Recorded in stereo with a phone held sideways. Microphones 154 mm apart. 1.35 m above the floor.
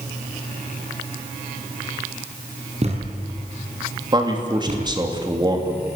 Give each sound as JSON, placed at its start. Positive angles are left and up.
{"t": 2.8, "sound": "a thud", "side_deg": -40, "distance_m": 5.0}
{"t": 4.1, "sound": "a man speaking", "side_deg": -25, "distance_m": 3.0}